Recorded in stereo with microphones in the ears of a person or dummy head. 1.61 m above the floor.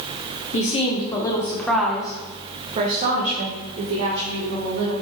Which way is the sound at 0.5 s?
35° left (ahead or behind).